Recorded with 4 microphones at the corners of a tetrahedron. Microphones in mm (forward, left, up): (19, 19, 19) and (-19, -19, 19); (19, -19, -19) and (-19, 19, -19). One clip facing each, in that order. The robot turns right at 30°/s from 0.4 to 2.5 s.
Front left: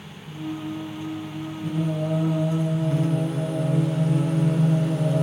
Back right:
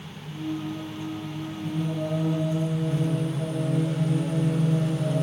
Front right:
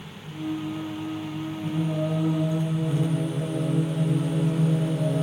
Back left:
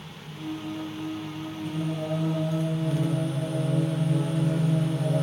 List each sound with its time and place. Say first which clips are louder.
1.6 s singing: front left 3 dB, front right 3 dB; 10° left, 3.5 m; by 5.2 s 35° left, 3.5 m